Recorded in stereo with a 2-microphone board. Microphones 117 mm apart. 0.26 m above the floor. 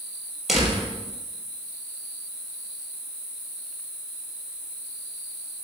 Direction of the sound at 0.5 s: Centre (ahead or behind).